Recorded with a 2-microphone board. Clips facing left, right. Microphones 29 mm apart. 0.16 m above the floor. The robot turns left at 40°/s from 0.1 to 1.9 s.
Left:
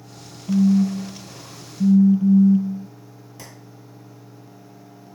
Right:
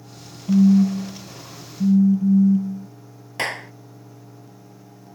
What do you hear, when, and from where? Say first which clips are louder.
0.5 s a phone buzzing: right 2 dB; 150° right; by 2.9 s 150° left
3.4 s a clap: right 19 dB; 65° right (ahead or behind)